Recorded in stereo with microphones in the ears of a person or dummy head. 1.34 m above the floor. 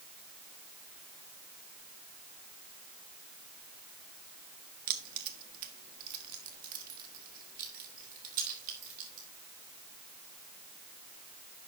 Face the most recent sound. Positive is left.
turn(degrees=-50)  # may be behind; listen again after turning